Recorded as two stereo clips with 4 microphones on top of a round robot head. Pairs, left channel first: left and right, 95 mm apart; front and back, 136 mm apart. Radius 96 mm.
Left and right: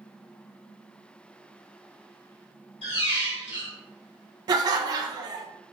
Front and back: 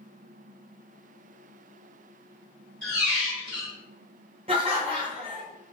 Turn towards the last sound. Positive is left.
turn(degrees=-125)